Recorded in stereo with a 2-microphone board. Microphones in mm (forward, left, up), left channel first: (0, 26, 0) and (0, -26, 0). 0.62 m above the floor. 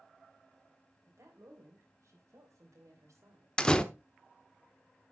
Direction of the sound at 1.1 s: 65° right (ahead or behind).